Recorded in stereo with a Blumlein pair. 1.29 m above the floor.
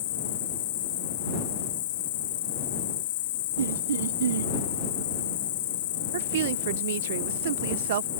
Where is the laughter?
65° right.